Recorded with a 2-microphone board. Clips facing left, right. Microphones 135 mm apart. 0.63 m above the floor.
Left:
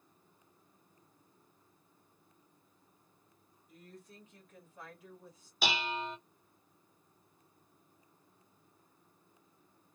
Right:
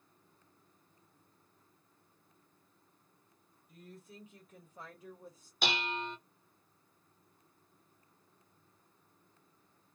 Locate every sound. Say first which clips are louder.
3.7 s a woman speaking: right 1 dB; centre (ahead or behind), 1.4 m; by 5.5 s 35° right (ahead or behind), 1.1 m
5.6 s dishes clattering: left 1 dB; 5° left (ahead or behind), 0.6 m